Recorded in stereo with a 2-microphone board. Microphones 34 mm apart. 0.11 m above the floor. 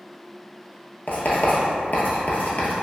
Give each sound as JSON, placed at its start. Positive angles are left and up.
{"t": 1.1, "sound": "writing", "side_deg": 60, "distance_m": 0.8}